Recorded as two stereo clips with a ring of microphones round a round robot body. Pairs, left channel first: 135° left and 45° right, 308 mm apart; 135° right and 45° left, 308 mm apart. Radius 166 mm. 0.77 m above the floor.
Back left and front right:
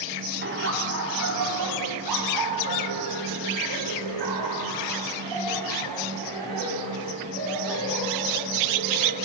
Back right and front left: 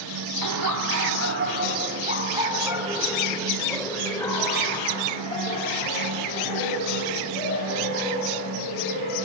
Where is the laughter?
15° left, 2.0 m; by 9.2 s 75° right, 6.5 m.